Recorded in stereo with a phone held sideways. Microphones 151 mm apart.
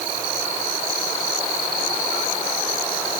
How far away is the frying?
I don't hear frying.